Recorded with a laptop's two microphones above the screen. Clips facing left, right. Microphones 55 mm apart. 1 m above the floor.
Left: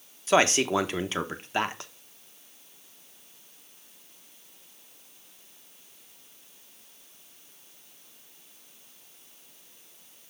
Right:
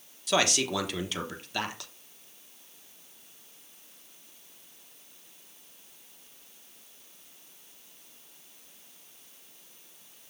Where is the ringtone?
No ringtone in this recording.